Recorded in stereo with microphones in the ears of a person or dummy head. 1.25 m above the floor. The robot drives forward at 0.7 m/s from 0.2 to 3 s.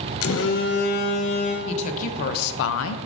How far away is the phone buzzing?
About 0.8 m.